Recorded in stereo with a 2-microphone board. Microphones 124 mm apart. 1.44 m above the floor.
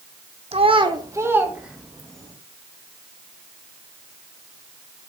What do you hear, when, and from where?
0.5 s a child speaking: 55° right (ahead or behind), 0.9 m; by 2.3 s 5° left (ahead or behind), 1.7 m